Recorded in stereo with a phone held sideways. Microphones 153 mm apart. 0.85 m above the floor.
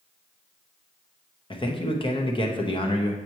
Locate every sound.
1.5 s a man speaking: 35° left (ahead or behind), 0.9 m